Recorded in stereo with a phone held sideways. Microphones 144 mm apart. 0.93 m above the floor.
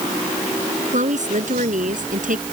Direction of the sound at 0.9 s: 60° right (ahead or behind).